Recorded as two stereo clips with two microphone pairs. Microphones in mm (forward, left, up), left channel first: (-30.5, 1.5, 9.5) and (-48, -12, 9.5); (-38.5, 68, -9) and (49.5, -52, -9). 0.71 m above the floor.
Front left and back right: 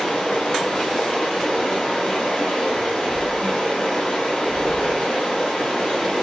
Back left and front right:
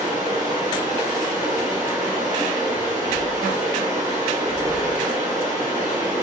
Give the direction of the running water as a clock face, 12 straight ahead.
12 o'clock.